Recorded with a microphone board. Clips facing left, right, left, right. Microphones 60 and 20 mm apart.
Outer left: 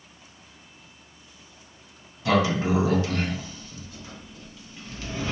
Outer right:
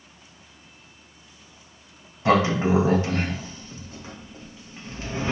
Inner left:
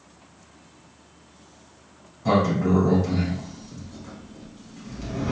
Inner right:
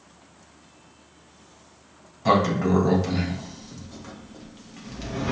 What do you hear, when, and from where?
2.2 s a sliding door: 30° right (ahead or behind), 0.7 m